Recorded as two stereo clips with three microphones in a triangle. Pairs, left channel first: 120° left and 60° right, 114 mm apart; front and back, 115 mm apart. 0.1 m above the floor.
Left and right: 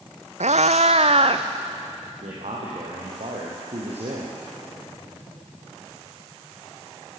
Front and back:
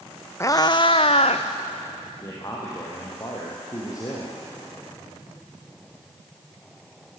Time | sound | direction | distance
0.4 | a cat meowing | 65° right | 0.9 m
2.2 | a man speaking | 55° right | 4.5 m